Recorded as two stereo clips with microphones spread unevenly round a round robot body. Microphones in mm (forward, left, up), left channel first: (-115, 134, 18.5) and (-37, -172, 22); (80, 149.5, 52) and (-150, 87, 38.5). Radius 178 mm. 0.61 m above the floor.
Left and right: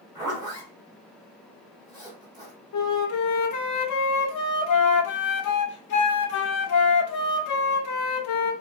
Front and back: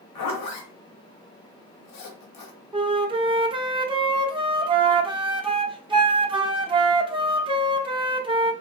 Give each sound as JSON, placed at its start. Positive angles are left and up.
{"t": 0.1, "sound": "a zipper", "azimuth_deg": 5, "distance_m": 0.7}
{"t": 2.7, "sound": "a flute", "azimuth_deg": 125, "distance_m": 0.6}